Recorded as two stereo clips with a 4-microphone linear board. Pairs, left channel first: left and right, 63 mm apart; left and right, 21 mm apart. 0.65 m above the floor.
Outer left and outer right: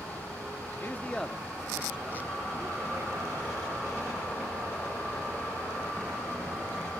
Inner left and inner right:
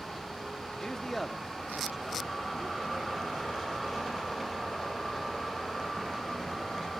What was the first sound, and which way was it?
A man speaking, 35° left (ahead or behind).